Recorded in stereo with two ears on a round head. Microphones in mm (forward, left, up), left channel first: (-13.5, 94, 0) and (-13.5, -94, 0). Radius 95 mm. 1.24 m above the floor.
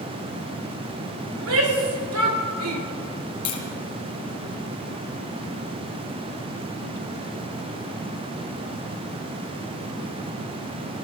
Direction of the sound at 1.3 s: 75° right (ahead or behind).